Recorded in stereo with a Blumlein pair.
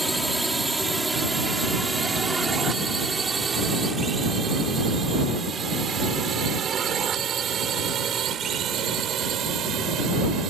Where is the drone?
5° right; by 10.5 s 30° right.